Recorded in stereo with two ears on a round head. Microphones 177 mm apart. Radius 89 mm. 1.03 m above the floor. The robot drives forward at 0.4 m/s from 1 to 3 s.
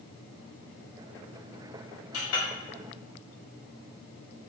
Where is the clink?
75° left (ahead or behind), 0.9 m; by 2.5 s 80° left, 0.9 m.